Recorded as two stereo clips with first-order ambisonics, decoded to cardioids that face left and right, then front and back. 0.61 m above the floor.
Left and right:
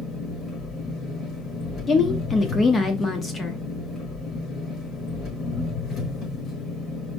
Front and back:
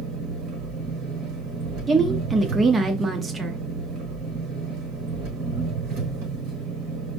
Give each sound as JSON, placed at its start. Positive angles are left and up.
{"t": 0.0, "sound": "an engine running", "azimuth_deg": 150, "distance_m": 4.0}
{"t": 1.9, "sound": "a woman speaking", "azimuth_deg": 130, "distance_m": 0.8}